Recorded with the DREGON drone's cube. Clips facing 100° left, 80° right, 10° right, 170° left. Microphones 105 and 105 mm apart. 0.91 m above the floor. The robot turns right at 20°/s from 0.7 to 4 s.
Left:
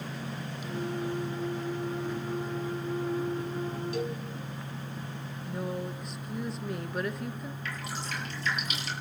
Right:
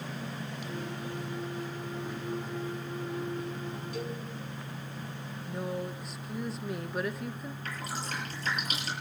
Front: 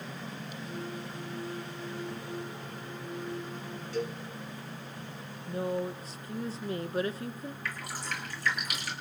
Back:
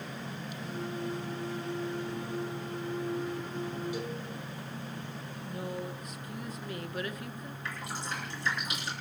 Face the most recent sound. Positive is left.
turn(degrees=-125)